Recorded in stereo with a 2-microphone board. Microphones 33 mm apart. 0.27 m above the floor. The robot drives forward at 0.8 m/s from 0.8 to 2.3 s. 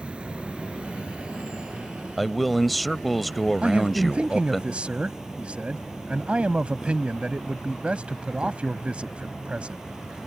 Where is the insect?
35° right (ahead or behind); by 10.3 s 20° right (ahead or behind).